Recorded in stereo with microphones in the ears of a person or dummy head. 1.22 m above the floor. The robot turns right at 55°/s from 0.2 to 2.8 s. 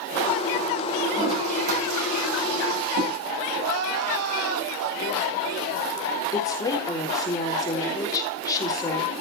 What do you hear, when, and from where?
1.1 s a toilet flushing: straight behind, 8 m; by 3.2 s 85° right, 8 m
3.6 s crying: 90° right, 3 m
6.3 s a woman speaking: 20° left (ahead or behind), 3.5 m